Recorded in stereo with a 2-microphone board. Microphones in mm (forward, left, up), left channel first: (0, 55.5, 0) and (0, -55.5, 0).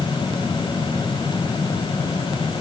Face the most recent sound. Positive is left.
No sound to turn to.